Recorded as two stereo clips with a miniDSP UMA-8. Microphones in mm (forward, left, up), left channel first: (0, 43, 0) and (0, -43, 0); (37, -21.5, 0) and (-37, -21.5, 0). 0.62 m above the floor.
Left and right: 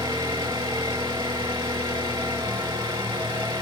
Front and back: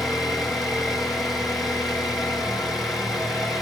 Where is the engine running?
95° right, 5 m.